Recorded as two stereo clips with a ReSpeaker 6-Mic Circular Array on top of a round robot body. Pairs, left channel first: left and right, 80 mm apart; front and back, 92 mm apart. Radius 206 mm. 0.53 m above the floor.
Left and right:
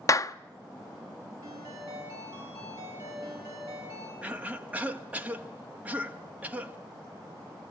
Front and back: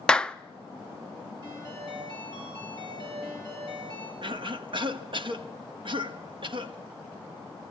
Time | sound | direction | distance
0.1 | a clap | 75° left | 0.7 m
1.4 | a ringtone | 140° right | 9.5 m
4.2 | a cough | 160° right | 1.4 m